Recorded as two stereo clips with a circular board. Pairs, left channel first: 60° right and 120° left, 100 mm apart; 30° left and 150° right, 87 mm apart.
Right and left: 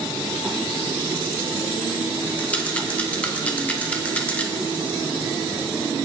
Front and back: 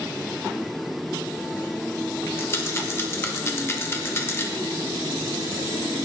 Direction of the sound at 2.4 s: Straight ahead.